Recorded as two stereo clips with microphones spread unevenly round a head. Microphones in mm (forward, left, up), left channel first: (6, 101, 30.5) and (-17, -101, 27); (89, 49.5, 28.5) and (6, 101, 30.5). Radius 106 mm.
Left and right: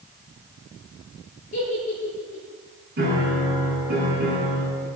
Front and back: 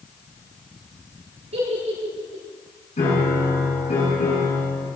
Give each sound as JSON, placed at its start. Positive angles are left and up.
{"t": 1.5, "sound": "a giggle", "azimuth_deg": 140, "distance_m": 9.0}
{"t": 3.0, "sound": "a piano", "azimuth_deg": -50, "distance_m": 8.0}